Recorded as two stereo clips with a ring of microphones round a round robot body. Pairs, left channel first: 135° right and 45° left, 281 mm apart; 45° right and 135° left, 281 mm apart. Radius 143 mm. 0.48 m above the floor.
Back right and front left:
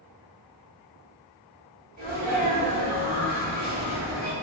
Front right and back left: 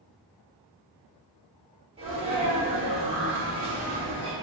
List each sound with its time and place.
2.0 s a sneeze: 80° left, 1.5 m